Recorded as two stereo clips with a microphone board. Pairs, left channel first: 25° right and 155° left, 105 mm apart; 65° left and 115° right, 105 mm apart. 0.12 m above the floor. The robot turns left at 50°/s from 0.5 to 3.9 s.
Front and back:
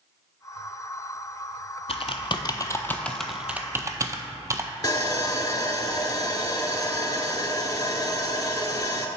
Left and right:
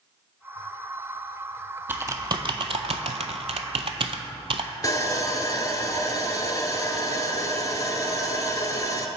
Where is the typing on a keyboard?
40° right, 0.5 m; by 4.7 s 145° right, 0.5 m.